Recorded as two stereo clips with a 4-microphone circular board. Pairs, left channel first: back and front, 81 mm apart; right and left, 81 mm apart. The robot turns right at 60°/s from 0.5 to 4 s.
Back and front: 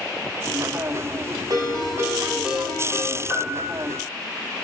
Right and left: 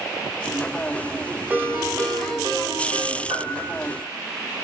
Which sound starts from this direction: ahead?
A ringtone, at 1.5 s.